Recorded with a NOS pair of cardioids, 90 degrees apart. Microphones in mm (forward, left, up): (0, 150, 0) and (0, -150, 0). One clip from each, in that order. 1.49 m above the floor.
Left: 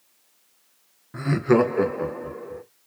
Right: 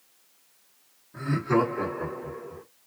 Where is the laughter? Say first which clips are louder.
Left 5 dB; 60° left, 0.9 m; by 2.6 s 50° left, 1.8 m.